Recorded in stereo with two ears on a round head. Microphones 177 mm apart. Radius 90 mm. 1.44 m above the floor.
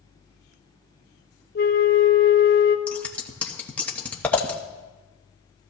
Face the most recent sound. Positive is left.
turn(degrees=10)  # may be behind; listen again after turning